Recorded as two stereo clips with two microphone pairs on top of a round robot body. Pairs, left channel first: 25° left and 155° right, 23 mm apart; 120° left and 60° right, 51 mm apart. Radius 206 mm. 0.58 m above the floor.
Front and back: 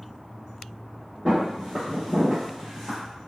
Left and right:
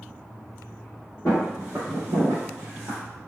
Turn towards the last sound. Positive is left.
turn(degrees=-60)